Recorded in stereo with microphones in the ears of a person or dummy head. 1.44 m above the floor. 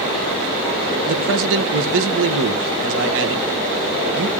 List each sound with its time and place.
1.1 s a man speaking: 70° right (ahead or behind), 1.5 m